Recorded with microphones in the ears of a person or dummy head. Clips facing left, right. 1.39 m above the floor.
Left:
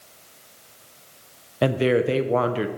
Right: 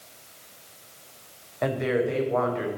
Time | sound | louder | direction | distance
1.6 | a woman speaking | left 5 dB | 45° left (ahead or behind) | 0.7 m